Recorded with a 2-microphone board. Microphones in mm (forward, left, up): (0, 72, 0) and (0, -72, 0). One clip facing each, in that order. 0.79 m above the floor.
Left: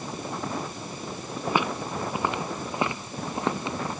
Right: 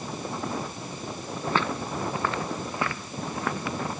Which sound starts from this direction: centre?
Footsteps, at 1.5 s.